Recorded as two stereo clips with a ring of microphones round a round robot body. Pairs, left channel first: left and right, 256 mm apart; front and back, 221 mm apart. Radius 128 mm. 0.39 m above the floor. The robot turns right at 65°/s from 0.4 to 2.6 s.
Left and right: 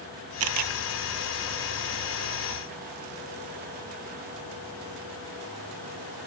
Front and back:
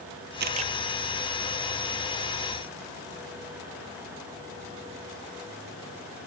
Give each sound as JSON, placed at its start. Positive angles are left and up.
{"t": 0.4, "sound": "a camera shutter", "azimuth_deg": -125}